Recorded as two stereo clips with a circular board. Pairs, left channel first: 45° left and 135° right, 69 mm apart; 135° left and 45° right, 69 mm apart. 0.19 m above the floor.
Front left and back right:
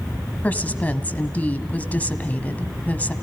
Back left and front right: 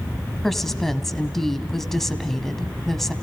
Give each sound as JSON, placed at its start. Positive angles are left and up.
{"t": 0.4, "sound": "a woman speaking", "azimuth_deg": 55, "distance_m": 1.2}